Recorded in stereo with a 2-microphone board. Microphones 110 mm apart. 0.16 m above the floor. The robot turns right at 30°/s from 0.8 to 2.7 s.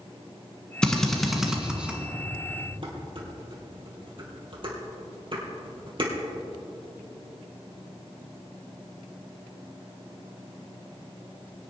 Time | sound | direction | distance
0.8 | a drill | 10° left (ahead or behind) | 1.7 m
2.8 | dishes clattering | 50° right (ahead or behind) | 3 m